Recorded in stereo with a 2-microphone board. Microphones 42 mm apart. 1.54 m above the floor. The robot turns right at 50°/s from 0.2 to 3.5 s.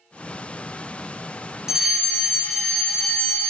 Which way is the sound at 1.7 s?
15° right (ahead or behind).